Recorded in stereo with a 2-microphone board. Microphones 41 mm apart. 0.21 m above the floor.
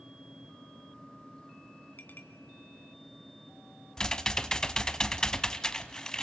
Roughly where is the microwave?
No microwave in this recording.